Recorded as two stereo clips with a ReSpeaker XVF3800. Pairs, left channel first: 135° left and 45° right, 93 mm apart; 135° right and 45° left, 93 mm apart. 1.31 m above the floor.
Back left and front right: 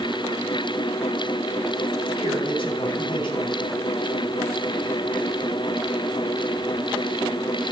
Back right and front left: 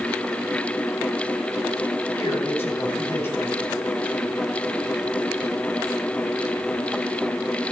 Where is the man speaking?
165° left, 5 m.